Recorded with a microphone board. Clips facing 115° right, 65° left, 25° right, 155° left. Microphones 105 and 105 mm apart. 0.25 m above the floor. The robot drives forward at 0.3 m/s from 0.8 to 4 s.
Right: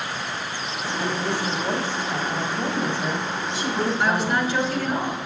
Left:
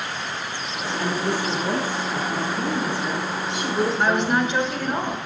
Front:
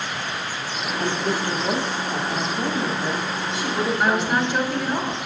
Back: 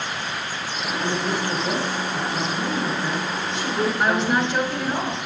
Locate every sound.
1.0 s a woman speaking: 50° right, 1.4 m; by 5.0 s 110° right, 1.2 m
4.0 s a woman speaking: 65° left, 1.1 m; by 5.2 s 70° left, 1.1 m